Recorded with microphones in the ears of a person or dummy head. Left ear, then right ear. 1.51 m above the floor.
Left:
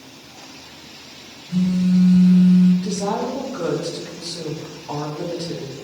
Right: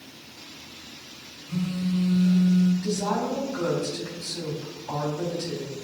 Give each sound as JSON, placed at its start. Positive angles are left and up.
{"t": 1.5, "sound": "a phone buzzing", "side_deg": -10, "distance_m": 2.5}
{"t": 2.8, "sound": "a woman speaking", "side_deg": -5, "distance_m": 3.5}